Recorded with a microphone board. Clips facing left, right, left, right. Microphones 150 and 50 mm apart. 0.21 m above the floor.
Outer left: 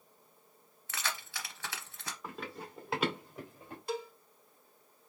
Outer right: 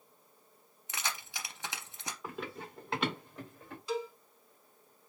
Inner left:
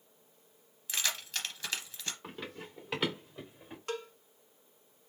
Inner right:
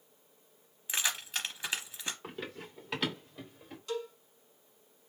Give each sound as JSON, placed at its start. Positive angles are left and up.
{"t": 0.9, "sound": "keys jangling", "side_deg": -20, "distance_m": 0.7}
{"t": 2.2, "sound": "running footsteps", "side_deg": -5, "distance_m": 1.9}
{"t": 3.9, "sound": "a cowbell", "side_deg": 60, "distance_m": 0.7}